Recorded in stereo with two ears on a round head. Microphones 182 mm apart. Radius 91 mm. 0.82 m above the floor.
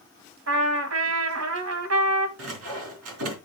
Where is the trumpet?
75° right (ahead or behind), 1.6 m.